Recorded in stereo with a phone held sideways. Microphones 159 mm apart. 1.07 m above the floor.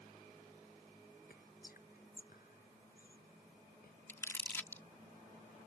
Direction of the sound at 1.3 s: 70° left (ahead or behind).